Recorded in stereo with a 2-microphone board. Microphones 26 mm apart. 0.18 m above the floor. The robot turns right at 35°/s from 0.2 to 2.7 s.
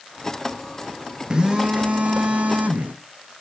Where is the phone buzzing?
150° right, 1.7 m; by 3.0 s 100° right, 1.7 m.